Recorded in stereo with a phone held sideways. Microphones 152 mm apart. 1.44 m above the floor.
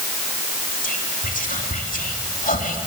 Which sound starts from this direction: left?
Whispering, at 0.8 s.